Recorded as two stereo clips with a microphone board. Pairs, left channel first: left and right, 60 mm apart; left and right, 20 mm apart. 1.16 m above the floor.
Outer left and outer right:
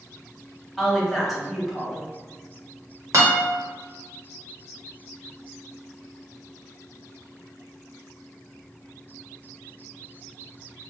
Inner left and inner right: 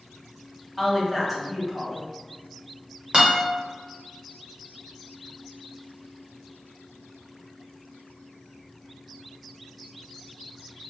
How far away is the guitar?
About 1.4 m.